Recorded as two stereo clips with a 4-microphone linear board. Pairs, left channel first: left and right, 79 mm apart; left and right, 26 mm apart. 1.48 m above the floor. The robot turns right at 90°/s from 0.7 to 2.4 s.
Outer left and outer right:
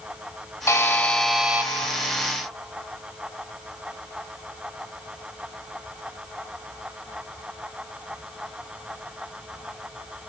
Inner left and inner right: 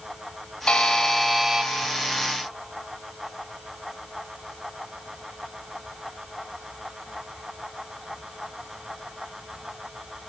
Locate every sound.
0.7 s a buzzer: 130° left, 1.7 m; by 1.7 s 145° right, 1.7 m